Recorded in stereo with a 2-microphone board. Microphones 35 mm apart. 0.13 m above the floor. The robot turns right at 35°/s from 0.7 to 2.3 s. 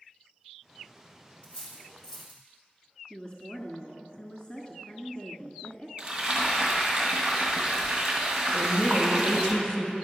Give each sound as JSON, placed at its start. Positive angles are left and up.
{"t": 1.4, "sound": "cutlery clinking", "side_deg": 35, "distance_m": 3.0}
{"t": 3.1, "sound": "a woman speaking", "side_deg": 25, "distance_m": 1.3}
{"t": 6.0, "sound": "frying", "side_deg": -25, "distance_m": 2.0}
{"t": 8.5, "sound": "a woman speaking", "side_deg": 25, "distance_m": 1.3}